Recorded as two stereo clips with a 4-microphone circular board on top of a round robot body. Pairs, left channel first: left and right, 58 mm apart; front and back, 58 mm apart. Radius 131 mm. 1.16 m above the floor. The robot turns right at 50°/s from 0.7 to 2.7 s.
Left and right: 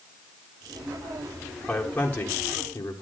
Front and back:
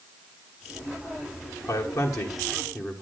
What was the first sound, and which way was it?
A man speaking, 10° left.